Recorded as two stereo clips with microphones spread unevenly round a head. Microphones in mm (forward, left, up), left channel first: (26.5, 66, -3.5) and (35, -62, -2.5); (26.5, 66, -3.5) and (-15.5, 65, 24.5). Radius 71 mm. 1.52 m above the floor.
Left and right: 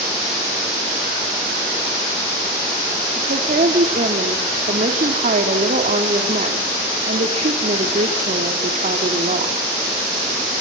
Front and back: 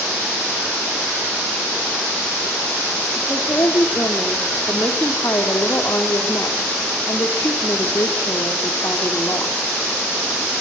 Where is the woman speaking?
60° right, 3 m.